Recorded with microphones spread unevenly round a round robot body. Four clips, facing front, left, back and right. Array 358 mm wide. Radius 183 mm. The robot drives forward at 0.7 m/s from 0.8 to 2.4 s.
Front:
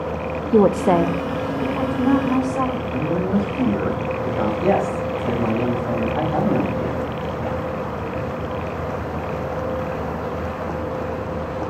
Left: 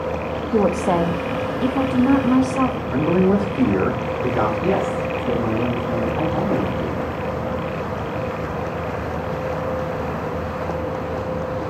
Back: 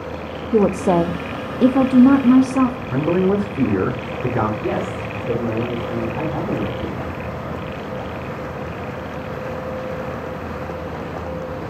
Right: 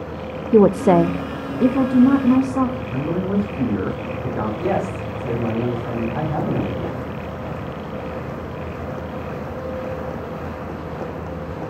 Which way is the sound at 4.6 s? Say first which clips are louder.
Left 2 dB, front 4 dB; 50° right.